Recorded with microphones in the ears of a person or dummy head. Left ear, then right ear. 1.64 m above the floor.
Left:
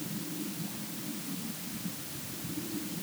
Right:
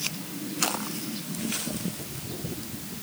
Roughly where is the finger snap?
I don't hear a finger snap.